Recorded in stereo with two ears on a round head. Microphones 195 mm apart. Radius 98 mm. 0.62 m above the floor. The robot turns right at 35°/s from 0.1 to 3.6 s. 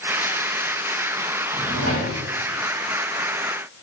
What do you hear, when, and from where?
1.5 s a drawer: 35° right (ahead or behind), 8 m; by 2.2 s 55° right (ahead or behind), 8 m